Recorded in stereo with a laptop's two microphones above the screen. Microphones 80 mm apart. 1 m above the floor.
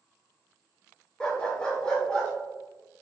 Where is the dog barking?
15° left (ahead or behind), 1.9 m; by 2.3 s 10° left (ahead or behind), 3 m.